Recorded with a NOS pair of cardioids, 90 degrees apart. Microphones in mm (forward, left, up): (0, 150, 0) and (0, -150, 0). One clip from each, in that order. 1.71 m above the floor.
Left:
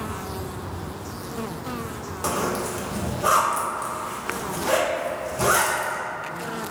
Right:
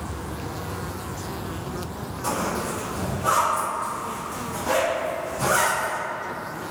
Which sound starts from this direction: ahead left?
A zipper, at 2.2 s.